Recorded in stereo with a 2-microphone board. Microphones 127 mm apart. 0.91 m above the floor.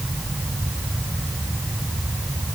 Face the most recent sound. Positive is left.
No sound to turn to.